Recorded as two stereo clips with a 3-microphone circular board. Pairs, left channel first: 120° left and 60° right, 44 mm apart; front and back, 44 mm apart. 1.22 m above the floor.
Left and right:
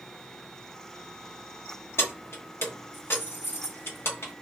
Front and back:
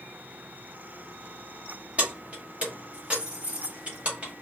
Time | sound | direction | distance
2.0 | keys jangling | 125° left | 1.0 m